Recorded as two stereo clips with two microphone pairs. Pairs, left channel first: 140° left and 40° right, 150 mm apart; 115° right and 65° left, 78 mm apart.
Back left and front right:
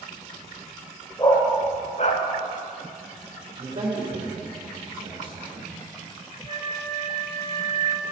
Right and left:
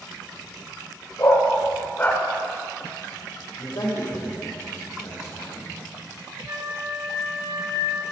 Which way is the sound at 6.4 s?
85° left.